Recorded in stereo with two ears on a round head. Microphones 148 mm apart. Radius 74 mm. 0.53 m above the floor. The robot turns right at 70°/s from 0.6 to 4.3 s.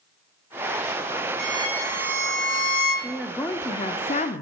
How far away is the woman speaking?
About 0.8 m.